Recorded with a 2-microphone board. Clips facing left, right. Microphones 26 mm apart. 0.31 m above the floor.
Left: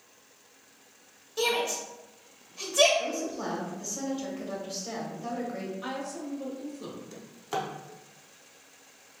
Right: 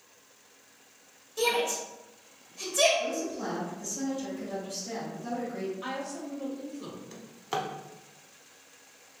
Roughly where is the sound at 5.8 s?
Centre.